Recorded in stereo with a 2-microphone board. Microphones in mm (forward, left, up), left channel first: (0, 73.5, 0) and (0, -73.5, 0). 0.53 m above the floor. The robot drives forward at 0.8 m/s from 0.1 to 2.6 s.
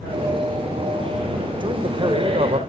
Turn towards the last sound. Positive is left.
turn(degrees=-45)  # may be behind; listen again after turning